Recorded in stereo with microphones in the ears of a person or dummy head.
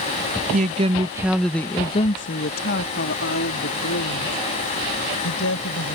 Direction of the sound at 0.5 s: 40° right (ahead or behind).